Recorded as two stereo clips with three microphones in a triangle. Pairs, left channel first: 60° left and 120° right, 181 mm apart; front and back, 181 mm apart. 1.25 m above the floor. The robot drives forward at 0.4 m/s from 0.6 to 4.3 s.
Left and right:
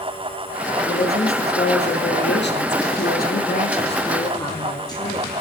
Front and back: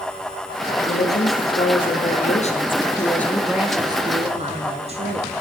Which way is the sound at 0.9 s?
25° left.